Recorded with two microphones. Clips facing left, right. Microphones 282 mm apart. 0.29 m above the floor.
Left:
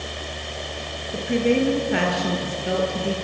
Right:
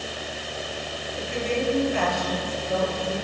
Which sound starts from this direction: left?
A woman speaking, at 1.1 s.